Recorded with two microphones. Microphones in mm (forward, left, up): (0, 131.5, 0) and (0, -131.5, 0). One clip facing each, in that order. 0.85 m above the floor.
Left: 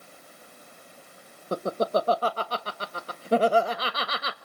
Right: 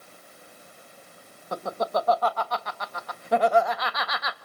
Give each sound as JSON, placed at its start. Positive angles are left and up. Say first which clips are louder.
{"t": 1.5, "sound": "laughter", "louder": "left 3 dB", "side_deg": 35, "distance_m": 1.1}